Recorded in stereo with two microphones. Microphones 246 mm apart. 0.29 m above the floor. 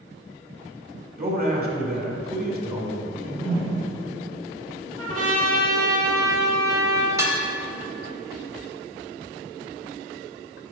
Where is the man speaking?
40° right (ahead or behind), 1.2 m.